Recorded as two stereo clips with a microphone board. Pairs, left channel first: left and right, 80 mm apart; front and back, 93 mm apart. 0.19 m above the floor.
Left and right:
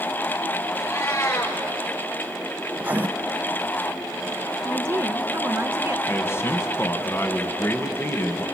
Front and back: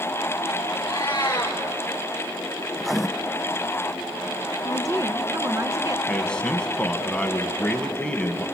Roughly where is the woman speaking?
Behind right.